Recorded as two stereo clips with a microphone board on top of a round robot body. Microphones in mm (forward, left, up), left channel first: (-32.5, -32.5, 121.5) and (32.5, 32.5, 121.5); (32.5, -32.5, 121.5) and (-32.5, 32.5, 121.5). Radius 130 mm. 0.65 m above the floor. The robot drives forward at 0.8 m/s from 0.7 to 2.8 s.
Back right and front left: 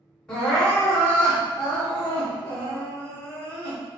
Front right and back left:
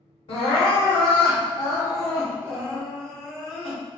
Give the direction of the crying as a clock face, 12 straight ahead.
2 o'clock.